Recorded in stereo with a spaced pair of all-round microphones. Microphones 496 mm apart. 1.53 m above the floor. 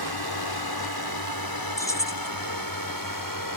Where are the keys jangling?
5° left (ahead or behind).